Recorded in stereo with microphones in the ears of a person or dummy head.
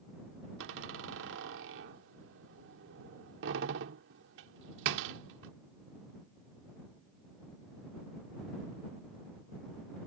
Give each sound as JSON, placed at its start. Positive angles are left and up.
{"t": 0.6, "sound": "a door slam", "side_deg": -60}